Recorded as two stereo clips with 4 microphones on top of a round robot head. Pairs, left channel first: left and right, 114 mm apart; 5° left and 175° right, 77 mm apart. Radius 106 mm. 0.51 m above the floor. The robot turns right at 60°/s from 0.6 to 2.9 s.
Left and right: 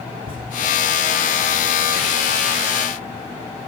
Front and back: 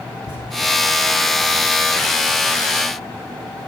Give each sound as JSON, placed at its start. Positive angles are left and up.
{"t": 0.2, "sound": "a thud", "azimuth_deg": -135, "distance_m": 8.5}